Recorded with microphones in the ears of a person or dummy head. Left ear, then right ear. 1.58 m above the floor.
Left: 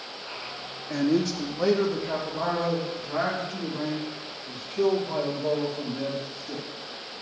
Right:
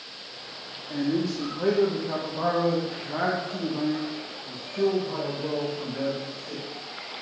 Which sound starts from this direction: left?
A man speaking, at 0.9 s.